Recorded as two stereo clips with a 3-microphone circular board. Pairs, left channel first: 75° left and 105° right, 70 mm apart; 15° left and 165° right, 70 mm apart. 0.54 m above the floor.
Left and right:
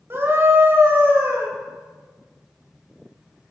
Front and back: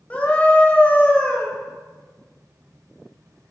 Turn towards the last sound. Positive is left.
turn(degrees=-55)